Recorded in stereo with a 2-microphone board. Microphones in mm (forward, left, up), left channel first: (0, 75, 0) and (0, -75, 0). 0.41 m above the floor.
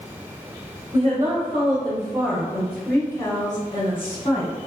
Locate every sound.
0.9 s a woman speaking: 40° right (ahead or behind), 1.4 m; by 4.5 s 45° left (ahead or behind), 1.5 m